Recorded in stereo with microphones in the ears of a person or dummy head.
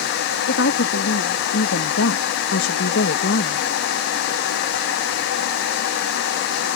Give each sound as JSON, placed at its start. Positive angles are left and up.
{"t": 0.5, "sound": "a woman speaking", "side_deg": 75}